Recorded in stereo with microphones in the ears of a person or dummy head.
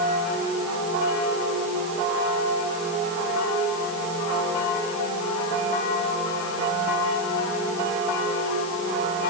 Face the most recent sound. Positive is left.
No sound to turn to.